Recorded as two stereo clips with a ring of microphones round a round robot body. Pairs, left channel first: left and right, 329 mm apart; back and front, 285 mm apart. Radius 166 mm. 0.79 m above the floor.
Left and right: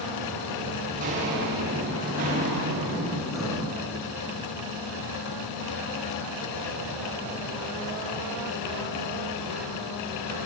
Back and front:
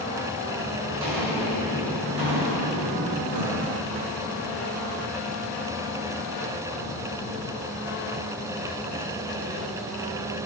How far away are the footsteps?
About 10 m.